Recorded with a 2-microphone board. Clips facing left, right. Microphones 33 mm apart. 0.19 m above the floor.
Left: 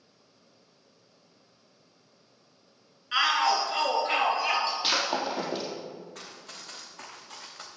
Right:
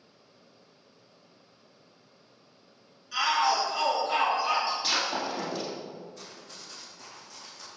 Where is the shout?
50° left (ahead or behind), 2.5 m; by 4.7 s 65° left (ahead or behind), 4 m.